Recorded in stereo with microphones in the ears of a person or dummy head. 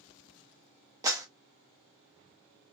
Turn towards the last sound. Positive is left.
turn(degrees=-15)  # may be behind; listen again after turning